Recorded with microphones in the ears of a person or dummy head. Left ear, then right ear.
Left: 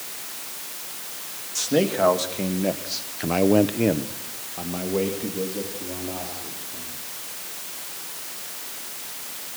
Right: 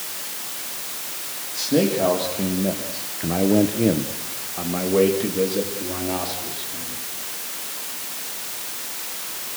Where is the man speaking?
50° left (ahead or behind), 2.5 m; by 7.0 s 20° right (ahead or behind), 4.5 m.